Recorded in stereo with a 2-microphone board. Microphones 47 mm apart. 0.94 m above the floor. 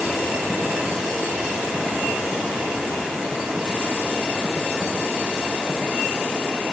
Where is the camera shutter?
No camera shutter in this recording.